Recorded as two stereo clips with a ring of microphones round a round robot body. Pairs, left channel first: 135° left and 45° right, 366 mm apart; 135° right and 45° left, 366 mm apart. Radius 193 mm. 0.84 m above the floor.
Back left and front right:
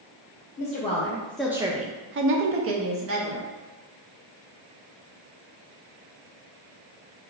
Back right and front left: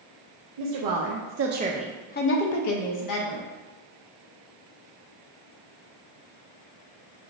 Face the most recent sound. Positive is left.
turn(degrees=-100)